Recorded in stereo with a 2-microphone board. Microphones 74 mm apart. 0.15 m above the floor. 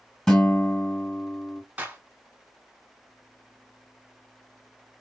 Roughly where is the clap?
Centre.